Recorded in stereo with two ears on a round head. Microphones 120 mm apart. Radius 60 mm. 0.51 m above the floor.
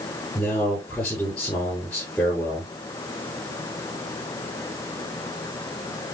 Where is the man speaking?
15° left (ahead or behind), 8 m.